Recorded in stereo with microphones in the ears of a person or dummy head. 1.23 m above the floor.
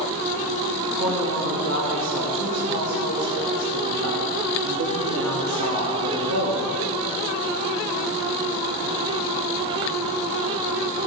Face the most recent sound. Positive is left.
turn(degrees=-70)  # may be behind; listen again after turning